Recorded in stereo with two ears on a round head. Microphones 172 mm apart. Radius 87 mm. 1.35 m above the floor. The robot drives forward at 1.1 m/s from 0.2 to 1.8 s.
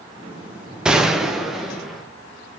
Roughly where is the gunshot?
Centre.